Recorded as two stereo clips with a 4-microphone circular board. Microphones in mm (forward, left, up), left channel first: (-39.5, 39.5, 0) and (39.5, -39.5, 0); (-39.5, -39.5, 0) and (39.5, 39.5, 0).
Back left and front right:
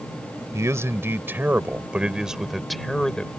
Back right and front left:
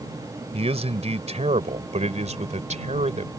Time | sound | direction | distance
0.5 | a man speaking | 20° left | ?